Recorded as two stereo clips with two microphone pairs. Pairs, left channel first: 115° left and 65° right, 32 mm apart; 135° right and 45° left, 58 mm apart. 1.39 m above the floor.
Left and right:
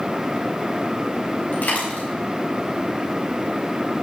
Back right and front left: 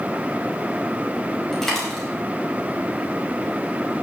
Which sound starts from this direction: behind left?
A dropped coin, at 1.5 s.